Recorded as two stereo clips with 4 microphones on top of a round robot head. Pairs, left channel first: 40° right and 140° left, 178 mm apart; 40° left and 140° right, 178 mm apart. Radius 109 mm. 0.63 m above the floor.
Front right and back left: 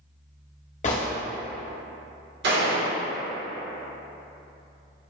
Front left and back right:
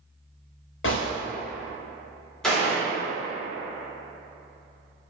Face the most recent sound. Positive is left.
turn(degrees=125)